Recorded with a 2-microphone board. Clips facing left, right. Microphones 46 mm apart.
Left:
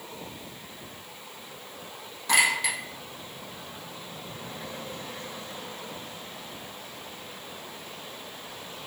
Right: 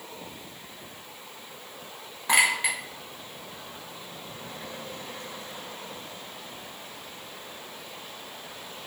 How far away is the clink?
About 1.0 m.